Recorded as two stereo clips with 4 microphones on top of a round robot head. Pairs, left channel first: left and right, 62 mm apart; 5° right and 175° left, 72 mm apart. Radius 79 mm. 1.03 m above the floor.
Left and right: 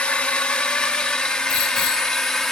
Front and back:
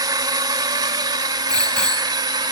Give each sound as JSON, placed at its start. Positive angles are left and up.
{"t": 0.0, "sound": "a drone", "azimuth_deg": 160}
{"t": 1.5, "sound": "a bicycle bell", "azimuth_deg": 75}